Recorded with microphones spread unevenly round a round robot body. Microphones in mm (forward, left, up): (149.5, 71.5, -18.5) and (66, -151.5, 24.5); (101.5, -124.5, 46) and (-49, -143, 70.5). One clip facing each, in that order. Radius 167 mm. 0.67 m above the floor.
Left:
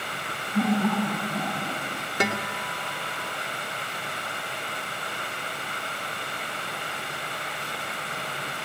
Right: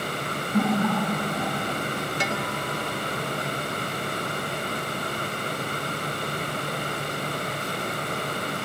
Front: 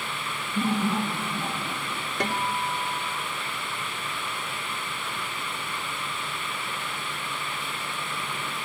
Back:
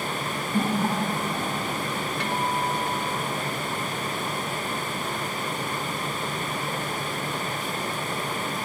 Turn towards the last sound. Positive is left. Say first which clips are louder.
# even, even
turn(degrees=55)